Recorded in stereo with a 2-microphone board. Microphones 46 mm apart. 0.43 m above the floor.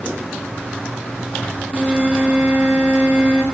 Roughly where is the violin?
Right.